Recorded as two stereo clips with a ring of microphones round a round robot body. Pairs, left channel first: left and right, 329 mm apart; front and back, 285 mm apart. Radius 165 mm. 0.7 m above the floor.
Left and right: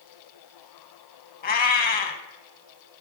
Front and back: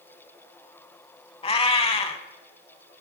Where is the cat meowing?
55° left, 0.6 m.